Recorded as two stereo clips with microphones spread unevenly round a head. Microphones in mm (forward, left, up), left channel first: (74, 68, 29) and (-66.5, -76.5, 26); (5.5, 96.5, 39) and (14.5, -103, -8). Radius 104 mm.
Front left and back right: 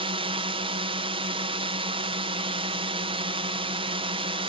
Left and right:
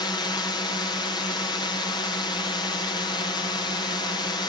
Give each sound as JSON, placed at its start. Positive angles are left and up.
{"t": 0.0, "sound": "a drone", "azimuth_deg": 170}